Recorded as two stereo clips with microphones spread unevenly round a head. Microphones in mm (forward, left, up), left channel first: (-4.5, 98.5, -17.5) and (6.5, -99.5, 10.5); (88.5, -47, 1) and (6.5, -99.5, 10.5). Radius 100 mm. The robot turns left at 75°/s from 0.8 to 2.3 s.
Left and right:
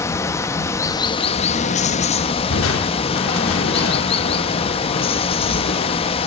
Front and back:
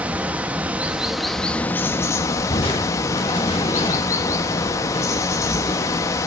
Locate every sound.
0.0 s running water: 165° left, 1.0 m; by 6.3 s 55° left, 1.0 m
2.5 s crushing: 85° left, 2 m